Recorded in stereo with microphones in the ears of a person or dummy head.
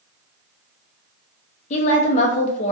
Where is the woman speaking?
40° left (ahead or behind), 0.7 m.